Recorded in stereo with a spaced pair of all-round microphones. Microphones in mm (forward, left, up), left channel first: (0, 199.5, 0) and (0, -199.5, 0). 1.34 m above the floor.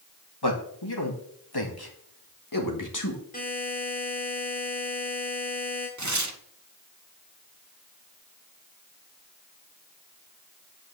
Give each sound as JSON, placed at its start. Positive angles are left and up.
{"t": 0.4, "sound": "a man speaking", "side_deg": 85, "distance_m": 2.5}
{"t": 3.3, "sound": "a buzzer", "side_deg": 20, "distance_m": 3.5}
{"t": 6.0, "sound": "tearing paper", "side_deg": -45, "distance_m": 1.1}